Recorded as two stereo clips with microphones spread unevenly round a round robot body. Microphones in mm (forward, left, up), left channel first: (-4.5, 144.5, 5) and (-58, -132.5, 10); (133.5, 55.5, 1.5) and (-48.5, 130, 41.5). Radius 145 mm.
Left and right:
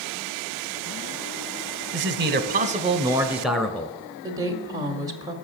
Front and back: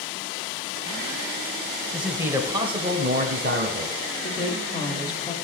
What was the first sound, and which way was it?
A man speaking, 100° right.